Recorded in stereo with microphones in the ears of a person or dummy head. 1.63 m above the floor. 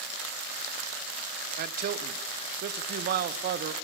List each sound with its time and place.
1.6 s a man speaking: 55° right (ahead or behind), 0.7 m